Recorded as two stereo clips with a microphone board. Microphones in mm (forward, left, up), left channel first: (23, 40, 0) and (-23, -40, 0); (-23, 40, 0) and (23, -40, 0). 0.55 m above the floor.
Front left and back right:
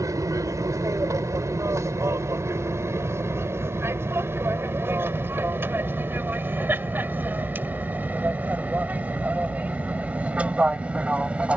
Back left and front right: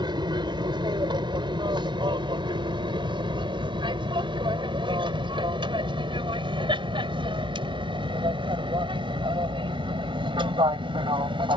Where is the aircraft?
75° right; by 11.6 s 45° right.